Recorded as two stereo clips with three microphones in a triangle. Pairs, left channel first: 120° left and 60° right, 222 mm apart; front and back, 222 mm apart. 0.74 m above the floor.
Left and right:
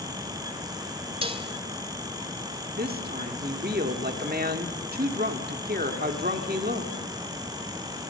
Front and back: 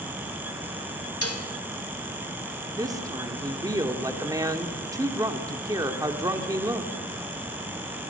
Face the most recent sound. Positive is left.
turn(degrees=-105)